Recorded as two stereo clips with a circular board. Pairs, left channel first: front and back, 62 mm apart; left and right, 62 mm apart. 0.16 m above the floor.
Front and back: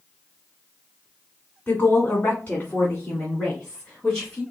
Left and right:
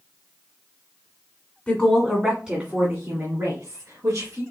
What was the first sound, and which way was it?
A woman speaking, 45° left.